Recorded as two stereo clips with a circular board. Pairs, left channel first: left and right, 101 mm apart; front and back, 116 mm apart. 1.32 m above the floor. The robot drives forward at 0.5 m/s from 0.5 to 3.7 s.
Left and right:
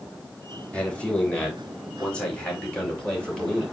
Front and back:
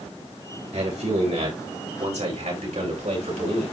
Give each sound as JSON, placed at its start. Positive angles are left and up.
{"t": 0.7, "sound": "a man speaking", "azimuth_deg": 165, "distance_m": 3.5}